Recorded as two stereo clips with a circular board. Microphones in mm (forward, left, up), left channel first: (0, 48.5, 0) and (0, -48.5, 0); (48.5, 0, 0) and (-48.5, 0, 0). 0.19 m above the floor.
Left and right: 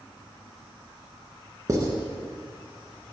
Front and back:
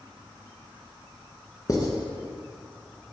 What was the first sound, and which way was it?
Writing, 40° right.